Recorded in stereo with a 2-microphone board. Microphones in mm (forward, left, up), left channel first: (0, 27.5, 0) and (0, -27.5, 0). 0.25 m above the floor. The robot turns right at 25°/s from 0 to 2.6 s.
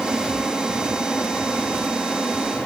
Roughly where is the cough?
I don't hear a cough.